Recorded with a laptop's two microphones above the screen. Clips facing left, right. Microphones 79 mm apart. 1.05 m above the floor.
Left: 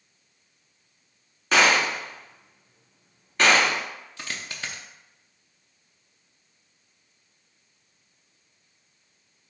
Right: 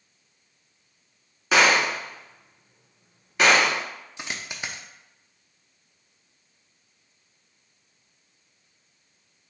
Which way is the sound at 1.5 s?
5° right (ahead or behind).